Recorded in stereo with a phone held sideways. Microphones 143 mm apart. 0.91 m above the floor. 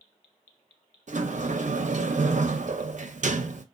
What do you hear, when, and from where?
1.1 s a sliding door: 60° right (ahead or behind), 0.5 m